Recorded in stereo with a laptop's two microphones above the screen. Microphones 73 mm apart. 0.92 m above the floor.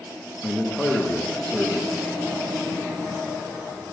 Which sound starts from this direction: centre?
A man speaking, at 0.4 s.